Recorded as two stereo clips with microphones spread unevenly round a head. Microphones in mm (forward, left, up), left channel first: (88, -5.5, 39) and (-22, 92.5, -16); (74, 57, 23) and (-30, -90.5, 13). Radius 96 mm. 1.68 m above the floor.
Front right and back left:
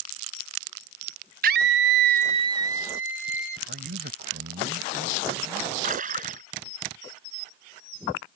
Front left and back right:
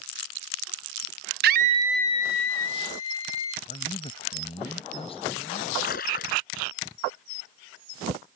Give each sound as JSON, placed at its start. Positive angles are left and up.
{"t": 1.4, "sound": "a scream", "azimuth_deg": -165}
{"t": 3.7, "sound": "a man speaking", "azimuth_deg": 120}
{"t": 5.8, "sound": "a splash", "azimuth_deg": 100}